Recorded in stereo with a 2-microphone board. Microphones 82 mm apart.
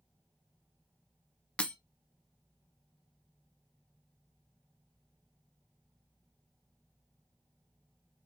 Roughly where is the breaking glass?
Centre.